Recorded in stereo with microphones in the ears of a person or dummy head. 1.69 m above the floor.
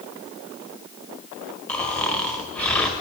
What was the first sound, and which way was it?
Snoring, 5° left (ahead or behind).